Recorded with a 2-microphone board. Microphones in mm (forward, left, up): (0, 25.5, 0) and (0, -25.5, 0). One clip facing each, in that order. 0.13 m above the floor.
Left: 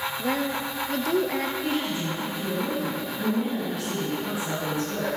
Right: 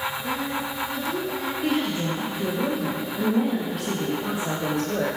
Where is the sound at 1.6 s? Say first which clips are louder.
Right 3 dB; 55° right (ahead or behind), 4.5 m.